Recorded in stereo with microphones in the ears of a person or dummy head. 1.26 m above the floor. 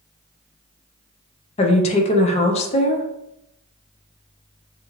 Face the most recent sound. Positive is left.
turn(degrees=30)  # may be behind; listen again after turning